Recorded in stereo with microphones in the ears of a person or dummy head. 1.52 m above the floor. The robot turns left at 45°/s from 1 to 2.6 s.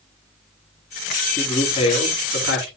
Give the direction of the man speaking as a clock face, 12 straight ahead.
6 o'clock.